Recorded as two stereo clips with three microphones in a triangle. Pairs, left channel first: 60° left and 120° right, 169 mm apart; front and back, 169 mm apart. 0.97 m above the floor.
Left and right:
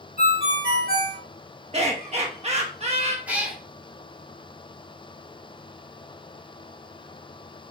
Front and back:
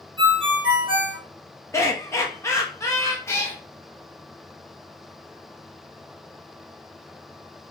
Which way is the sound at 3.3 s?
50° right.